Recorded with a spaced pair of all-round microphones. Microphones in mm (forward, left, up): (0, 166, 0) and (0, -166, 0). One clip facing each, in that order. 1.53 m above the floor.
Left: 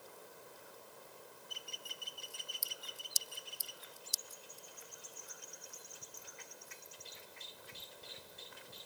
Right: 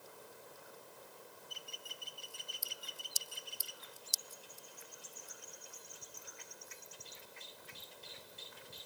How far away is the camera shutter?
I don't hear a camera shutter.